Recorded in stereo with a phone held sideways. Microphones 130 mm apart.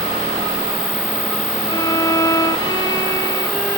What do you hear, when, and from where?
1.7 s a violin: 30° left (ahead or behind), 1.1 m